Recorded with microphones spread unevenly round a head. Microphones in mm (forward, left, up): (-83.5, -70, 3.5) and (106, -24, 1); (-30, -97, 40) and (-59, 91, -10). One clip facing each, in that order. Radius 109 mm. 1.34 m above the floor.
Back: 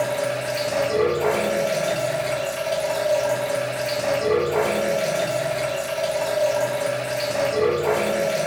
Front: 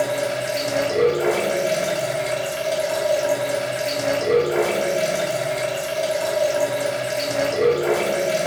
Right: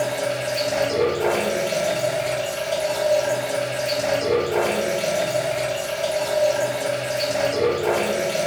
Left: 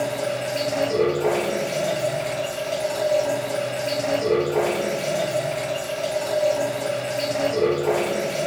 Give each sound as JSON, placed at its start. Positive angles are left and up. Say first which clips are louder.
{"t": 0.0, "sound": "running water", "louder": "front 1 dB, right 1 dB", "azimuth_deg": -15, "distance_m": 1.6}